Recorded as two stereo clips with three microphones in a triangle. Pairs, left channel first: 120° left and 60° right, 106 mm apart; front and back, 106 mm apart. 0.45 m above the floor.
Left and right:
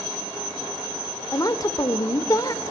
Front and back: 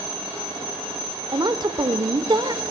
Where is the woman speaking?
160° left, 1.0 m.